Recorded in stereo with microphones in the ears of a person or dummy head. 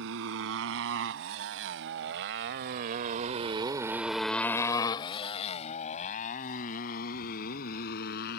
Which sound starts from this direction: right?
A motorcycle, at 0.0 s.